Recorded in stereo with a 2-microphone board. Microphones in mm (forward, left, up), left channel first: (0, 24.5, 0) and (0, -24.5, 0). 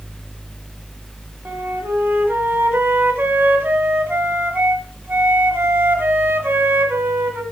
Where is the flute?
45° right (ahead or behind), 1.9 m.